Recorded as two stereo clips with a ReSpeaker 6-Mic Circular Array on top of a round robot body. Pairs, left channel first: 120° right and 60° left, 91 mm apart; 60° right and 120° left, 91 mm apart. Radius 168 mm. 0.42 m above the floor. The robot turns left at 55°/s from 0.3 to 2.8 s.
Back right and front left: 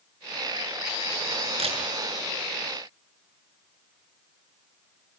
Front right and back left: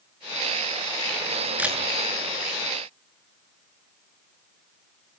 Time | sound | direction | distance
1.6 | a camera shutter | 45° left | 7.5 m